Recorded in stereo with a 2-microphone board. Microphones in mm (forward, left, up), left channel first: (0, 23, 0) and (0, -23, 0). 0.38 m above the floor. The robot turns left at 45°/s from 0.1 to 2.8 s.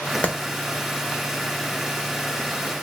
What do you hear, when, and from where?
0.2 s a clap: 30° left (ahead or behind), 0.7 m